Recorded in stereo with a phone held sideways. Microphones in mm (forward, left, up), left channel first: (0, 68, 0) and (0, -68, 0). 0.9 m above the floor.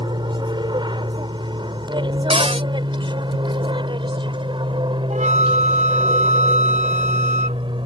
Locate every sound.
0.0 s an aircraft: 35° right (ahead or behind)
2.3 s a cupboard door: 45° right (ahead or behind)
5.1 s a flute: 60° right (ahead or behind)